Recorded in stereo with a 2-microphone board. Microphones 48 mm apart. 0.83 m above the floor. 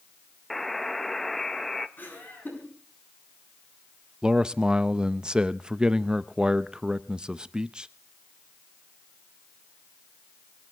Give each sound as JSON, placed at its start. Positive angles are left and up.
{"t": 0.5, "sound": "a buzzer", "side_deg": 5, "distance_m": 0.9}
{"t": 2.0, "sound": "laughter", "side_deg": 45, "distance_m": 8.5}
{"t": 4.2, "sound": "a man speaking", "side_deg": -20, "distance_m": 0.5}